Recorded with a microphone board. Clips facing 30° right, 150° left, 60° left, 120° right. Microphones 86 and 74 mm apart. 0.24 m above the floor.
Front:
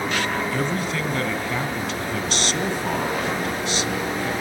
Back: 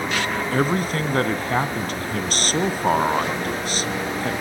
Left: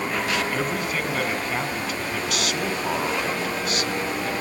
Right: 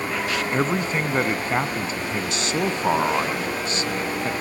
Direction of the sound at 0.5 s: 175° right.